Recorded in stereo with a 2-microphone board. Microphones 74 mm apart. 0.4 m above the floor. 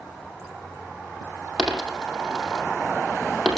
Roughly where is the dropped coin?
Centre.